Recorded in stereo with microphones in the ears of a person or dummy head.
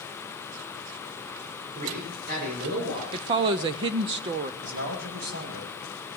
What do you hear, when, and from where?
1.8 s a man speaking: 45° right (ahead or behind), 7 m
3.1 s a woman speaking: 25° right (ahead or behind), 0.6 m
4.6 s a man speaking: 60° right (ahead or behind), 9.5 m